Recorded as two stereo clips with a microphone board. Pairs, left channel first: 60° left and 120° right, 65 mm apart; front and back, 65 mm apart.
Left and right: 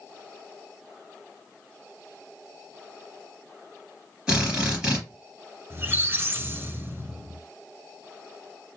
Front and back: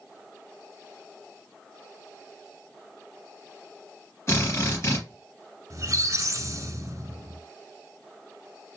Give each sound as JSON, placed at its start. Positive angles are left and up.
{"t": 4.3, "sound": "a drill", "azimuth_deg": -45, "distance_m": 3.0}
{"t": 5.7, "sound": "a squeak", "azimuth_deg": -170, "distance_m": 0.9}